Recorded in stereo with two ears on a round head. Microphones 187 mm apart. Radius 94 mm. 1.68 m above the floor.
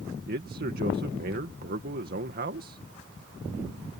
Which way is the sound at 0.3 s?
45° right (ahead or behind).